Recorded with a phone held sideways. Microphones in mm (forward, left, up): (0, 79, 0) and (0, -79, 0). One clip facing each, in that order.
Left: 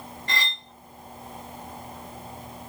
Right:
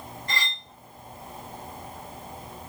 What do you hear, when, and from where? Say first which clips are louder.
0.3 s cutlery clinking: left 2 dB; 70° left (ahead or behind), 1.2 m